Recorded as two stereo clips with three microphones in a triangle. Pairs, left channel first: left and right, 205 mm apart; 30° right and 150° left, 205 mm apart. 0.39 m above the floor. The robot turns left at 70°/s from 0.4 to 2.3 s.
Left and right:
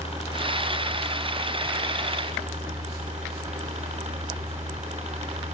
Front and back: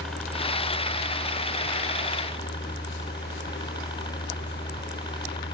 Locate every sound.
0.0 s a helicopter: 60° left; by 5.5 s 75° right